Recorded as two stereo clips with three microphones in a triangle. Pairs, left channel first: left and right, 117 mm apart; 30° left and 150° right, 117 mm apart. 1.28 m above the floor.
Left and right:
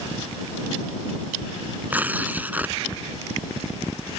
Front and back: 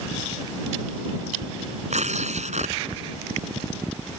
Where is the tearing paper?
165° right.